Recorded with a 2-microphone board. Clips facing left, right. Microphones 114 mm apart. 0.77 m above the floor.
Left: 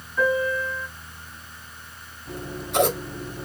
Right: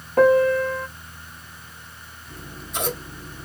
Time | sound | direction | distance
0.2 | a piano | 70° right (ahead or behind) | 0.6 m
2.3 | scissors | 70° left (ahead or behind) | 2.0 m